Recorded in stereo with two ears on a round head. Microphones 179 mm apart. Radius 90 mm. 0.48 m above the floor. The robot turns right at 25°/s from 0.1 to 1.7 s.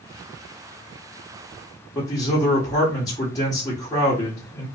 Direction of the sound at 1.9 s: 20° left (ahead or behind).